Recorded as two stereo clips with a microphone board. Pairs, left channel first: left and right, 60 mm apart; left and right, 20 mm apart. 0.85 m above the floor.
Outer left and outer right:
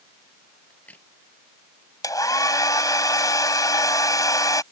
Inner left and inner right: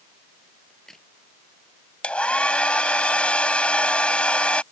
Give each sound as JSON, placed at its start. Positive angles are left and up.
{"t": 0.7, "sound": "a crack", "side_deg": 25}
{"t": 2.0, "sound": "a hair dryer", "side_deg": 85}